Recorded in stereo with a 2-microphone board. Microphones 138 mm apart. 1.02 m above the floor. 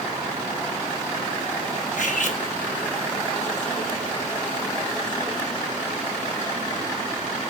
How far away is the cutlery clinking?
About 0.9 m.